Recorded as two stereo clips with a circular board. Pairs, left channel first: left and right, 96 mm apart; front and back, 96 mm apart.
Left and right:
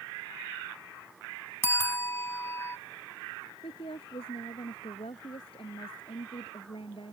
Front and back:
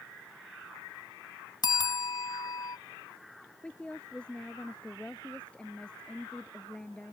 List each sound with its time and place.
1.6 s a bell: 30° left
3.6 s a woman speaking: 80° left